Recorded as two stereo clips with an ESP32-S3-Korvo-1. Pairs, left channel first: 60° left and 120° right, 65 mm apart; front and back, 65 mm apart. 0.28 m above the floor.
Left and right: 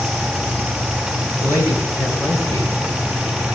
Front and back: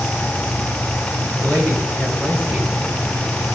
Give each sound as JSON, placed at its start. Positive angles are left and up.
{"t": 1.4, "sound": "a man speaking", "azimuth_deg": 60, "distance_m": 4.0}